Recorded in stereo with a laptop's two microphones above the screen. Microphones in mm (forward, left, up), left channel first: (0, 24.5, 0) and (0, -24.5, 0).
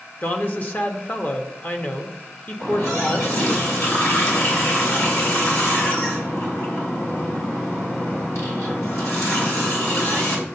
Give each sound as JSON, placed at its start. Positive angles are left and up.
{"t": 0.2, "sound": "a woman speaking", "side_deg": 40, "distance_m": 1.2}
{"t": 2.6, "sound": "a running tap", "side_deg": 75, "distance_m": 3.0}